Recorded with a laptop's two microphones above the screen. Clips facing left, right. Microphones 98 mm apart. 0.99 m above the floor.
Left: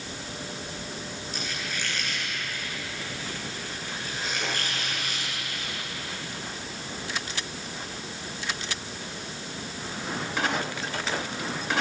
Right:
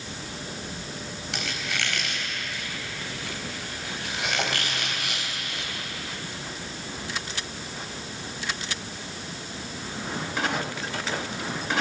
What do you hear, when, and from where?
1.3 s a squeak: 85° right, 4 m